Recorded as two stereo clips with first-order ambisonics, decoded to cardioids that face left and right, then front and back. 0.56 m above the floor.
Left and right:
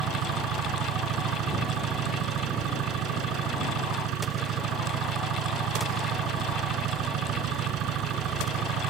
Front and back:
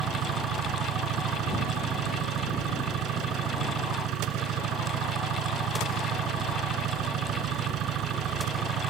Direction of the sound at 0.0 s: 135° right.